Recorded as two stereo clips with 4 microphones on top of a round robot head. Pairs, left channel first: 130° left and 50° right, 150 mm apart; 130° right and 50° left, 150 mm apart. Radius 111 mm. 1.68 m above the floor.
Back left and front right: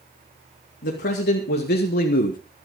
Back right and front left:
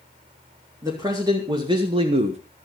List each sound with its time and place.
0.8 s a man speaking: 115° left, 2.5 m; by 2.4 s 95° left, 1.1 m